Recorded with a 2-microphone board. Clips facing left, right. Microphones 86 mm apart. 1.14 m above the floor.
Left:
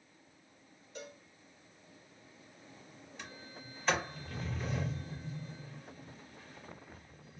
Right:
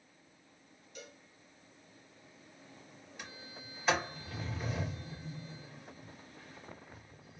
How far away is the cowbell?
About 0.8 m.